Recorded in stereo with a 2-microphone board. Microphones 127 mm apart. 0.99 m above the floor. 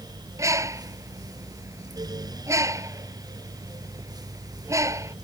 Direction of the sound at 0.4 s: 25° right (ahead or behind).